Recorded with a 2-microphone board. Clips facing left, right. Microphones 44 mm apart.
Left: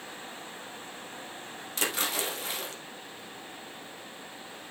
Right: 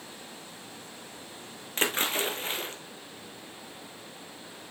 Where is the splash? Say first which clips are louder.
Right 3 dB; 35° right (ahead or behind), 1.8 m.